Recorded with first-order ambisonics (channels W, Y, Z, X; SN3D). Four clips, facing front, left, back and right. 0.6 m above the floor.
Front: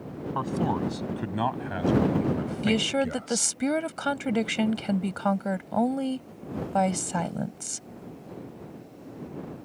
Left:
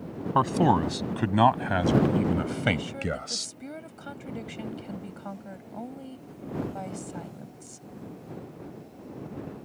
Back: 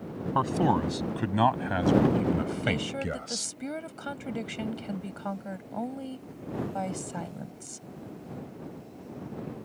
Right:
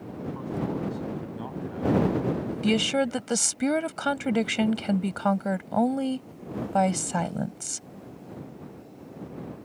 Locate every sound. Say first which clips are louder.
0.3 s a man speaking: left 10 dB, back 3 dB; 105° left
2.6 s a woman speaking: right 9 dB, front 5 dB; 55° right